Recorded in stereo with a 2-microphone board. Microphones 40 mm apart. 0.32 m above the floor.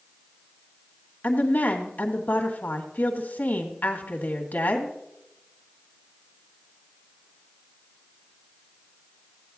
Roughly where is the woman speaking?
Left.